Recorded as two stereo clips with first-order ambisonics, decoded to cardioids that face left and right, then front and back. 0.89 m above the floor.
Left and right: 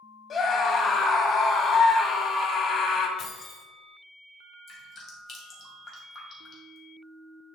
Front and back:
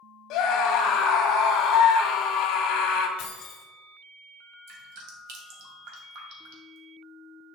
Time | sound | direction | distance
0.3 | a scream | 30° left | 1.5 m
3.2 | keys jangling | 30° left | 1.6 m
4.7 | dripping | 155° left | 2.0 m